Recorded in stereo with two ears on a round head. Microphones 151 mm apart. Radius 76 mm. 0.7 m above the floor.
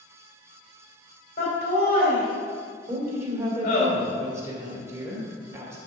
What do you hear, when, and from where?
1.4 s laughter: 50° left (ahead or behind), 3 m
2.9 s a woman speaking: 15° right (ahead or behind), 2.5 m